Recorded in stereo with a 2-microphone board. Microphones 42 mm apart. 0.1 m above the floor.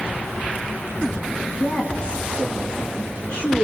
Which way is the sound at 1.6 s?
25° left (ahead or behind).